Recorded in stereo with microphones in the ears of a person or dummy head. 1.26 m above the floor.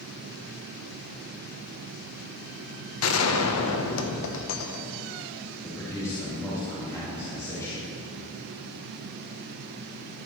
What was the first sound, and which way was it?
A gunshot, 75° left (ahead or behind).